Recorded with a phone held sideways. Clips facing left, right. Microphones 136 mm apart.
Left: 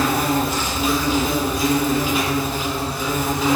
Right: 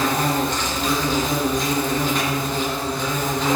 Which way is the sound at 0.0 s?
5° left (ahead or behind).